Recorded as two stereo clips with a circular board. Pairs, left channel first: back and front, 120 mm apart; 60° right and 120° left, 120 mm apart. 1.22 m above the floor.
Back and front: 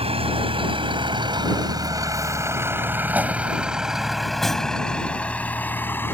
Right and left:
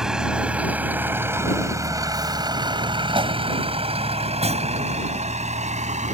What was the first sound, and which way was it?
A vehicle, 35° left.